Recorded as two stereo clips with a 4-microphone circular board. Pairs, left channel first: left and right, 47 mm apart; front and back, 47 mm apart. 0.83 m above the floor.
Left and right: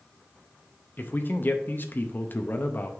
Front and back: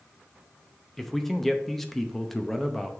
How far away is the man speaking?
About 0.7 m.